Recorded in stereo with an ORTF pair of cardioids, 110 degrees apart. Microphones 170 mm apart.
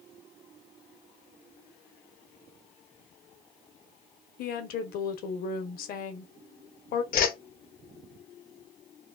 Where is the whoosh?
60° left, 0.7 m.